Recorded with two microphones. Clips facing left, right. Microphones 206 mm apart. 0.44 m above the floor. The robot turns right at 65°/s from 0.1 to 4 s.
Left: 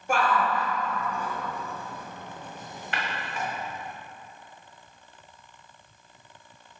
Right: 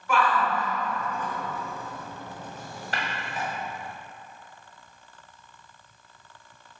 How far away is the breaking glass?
About 1.3 m.